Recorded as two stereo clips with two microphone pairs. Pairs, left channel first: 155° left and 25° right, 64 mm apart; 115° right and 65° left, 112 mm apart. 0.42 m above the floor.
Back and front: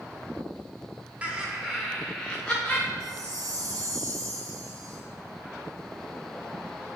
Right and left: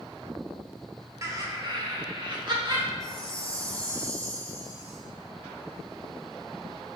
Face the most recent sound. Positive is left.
turn(degrees=5)